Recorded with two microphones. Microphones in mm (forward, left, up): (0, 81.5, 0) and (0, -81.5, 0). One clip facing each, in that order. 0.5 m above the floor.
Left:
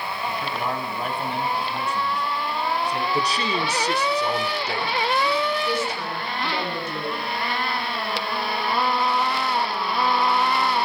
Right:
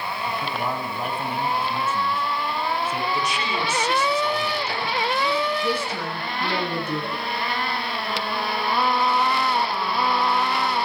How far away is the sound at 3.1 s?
About 1.6 m.